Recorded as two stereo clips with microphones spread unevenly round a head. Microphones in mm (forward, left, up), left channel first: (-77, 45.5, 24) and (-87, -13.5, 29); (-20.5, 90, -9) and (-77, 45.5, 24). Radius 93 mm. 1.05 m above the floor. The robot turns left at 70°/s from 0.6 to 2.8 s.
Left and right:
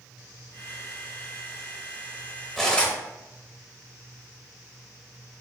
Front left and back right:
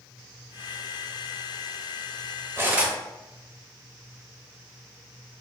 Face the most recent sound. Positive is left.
turn(degrees=150)